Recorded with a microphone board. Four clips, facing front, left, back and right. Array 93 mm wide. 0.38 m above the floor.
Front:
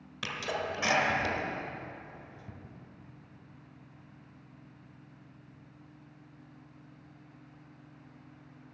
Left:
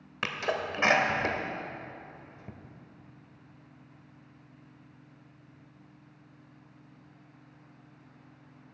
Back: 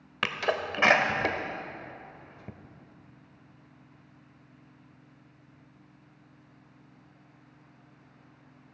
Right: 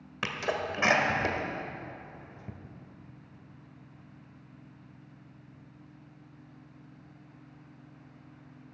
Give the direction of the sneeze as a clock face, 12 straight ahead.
6 o'clock.